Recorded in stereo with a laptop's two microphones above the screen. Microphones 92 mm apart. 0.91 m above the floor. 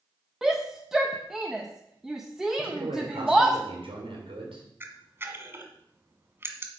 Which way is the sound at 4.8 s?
25° right (ahead or behind).